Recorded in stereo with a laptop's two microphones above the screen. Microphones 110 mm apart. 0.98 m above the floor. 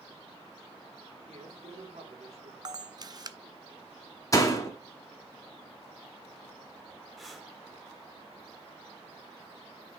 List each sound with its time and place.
1.3 s a man speaking: 80° right, 2.5 m
2.6 s a camera shutter: 40° right (ahead or behind), 0.5 m
4.3 s a door slam: 30° left (ahead or behind), 1.0 m
7.2 s breathing: centre (ahead or behind), 1.0 m